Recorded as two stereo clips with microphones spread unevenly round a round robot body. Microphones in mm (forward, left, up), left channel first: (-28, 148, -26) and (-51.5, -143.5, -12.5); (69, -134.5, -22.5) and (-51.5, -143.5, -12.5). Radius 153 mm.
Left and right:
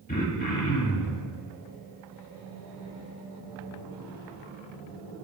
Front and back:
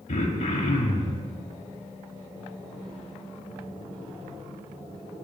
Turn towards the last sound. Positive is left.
turn(degrees=25)